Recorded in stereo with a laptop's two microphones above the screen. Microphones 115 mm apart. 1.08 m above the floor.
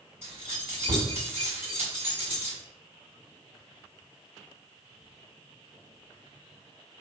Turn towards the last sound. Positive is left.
turn(degrees=-20)  # may be behind; listen again after turning